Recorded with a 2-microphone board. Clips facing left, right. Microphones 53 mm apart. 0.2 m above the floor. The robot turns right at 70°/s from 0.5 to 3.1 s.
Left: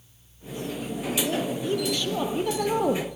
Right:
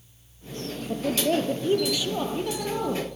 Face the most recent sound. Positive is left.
turn(degrees=70)